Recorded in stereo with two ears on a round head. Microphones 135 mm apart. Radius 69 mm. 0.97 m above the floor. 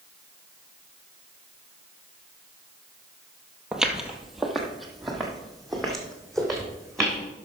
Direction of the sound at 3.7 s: 5° right (ahead or behind).